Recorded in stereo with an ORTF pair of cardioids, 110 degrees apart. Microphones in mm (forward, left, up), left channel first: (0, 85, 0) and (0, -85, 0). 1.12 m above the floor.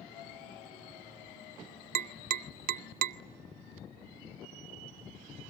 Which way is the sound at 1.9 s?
60° right.